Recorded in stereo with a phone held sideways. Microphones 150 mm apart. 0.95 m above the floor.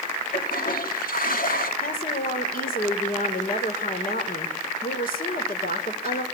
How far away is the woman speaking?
About 3.5 m.